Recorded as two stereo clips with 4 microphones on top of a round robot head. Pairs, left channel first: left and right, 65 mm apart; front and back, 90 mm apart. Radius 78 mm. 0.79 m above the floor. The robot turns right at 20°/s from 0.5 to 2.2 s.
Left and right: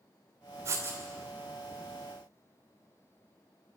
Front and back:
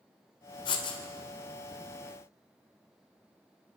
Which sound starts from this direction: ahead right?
Writing, at 0.7 s.